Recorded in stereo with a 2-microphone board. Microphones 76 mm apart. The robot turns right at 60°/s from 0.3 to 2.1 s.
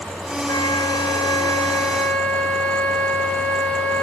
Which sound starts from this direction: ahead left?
A flute, at 0.5 s.